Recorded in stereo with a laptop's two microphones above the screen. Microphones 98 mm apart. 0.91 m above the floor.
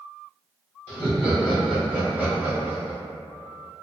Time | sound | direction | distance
0.9 | laughter | 20° left (ahead or behind) | 0.9 m